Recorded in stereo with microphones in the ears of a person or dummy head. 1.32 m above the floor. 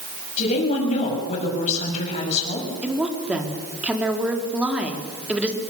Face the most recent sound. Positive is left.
turn(degrees=-10)  # may be behind; listen again after turning